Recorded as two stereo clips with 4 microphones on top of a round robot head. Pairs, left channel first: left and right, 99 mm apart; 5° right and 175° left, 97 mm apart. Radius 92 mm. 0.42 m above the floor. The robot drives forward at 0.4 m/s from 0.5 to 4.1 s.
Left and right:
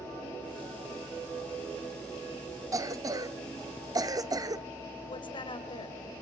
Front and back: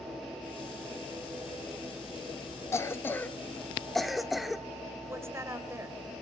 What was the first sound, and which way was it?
A cough, 55° right.